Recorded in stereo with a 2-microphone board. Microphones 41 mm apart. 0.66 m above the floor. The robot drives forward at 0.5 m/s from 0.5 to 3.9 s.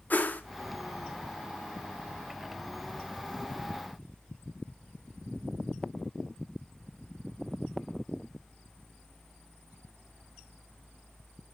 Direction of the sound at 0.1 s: 45° left (ahead or behind).